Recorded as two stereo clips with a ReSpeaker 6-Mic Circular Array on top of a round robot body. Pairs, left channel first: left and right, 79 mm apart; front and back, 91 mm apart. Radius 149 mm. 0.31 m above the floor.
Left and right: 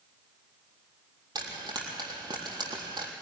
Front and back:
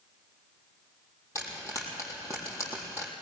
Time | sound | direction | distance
1.4 | frying | 55° right | 3.5 m